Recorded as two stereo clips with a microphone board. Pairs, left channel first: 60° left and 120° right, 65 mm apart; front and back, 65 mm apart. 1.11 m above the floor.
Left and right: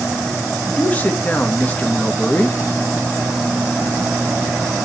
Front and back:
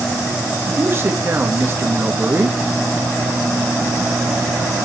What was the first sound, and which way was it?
A man speaking, 125° left.